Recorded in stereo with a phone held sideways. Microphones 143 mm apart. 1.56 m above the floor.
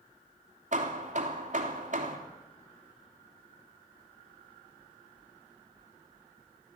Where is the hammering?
55° right (ahead or behind), 3 m.